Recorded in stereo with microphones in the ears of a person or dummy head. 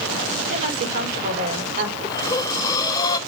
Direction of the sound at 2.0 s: 25° left (ahead or behind).